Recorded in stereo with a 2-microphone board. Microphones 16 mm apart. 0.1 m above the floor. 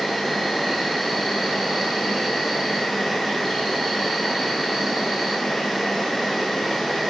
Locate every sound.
0.0 s an insect: centre (ahead or behind), 1.1 m